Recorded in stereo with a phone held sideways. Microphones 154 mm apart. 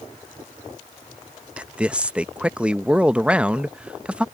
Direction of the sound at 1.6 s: 5° right (ahead or behind).